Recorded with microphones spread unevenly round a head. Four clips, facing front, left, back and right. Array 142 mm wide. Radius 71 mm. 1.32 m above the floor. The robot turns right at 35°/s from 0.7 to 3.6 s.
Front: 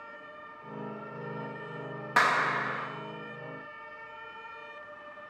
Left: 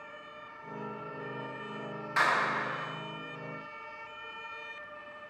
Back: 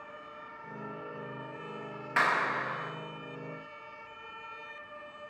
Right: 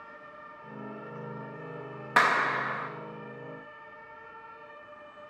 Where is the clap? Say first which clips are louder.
Right 4 dB, front 3 dB; 60° right, 1.6 m; by 2.9 s 35° right, 1.6 m.